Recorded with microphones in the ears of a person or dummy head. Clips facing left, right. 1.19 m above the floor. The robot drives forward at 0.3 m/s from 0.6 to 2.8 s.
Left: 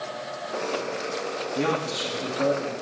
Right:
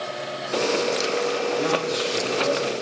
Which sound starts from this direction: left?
A man speaking, at 1.6 s.